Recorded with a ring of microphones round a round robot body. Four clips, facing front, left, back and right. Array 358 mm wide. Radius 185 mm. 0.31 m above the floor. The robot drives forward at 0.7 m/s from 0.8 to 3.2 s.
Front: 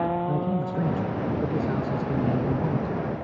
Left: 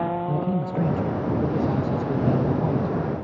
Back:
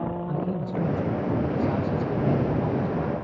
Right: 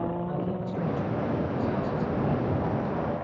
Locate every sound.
0.3 s a man speaking: 55° left, 4.5 m; by 3.1 s 75° left, 4 m